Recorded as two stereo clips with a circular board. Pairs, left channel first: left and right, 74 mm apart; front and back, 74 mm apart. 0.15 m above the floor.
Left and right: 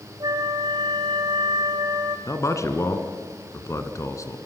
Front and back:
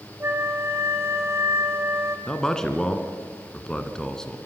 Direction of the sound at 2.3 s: 80° left.